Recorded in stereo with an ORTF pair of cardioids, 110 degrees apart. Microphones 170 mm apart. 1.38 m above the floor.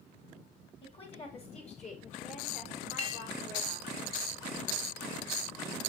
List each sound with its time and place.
0.8 s a woman speaking: 35° left, 5 m; by 4.0 s 65° left, 4.5 m
3.0 s a clink: 35° left, 1.5 m